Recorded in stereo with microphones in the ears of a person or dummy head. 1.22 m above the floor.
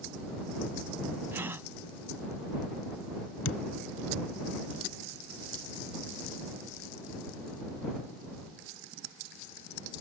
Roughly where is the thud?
Left.